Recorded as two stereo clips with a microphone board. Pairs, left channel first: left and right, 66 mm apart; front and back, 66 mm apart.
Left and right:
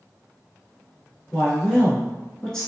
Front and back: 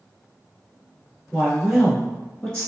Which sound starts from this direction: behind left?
A woman speaking, at 1.3 s.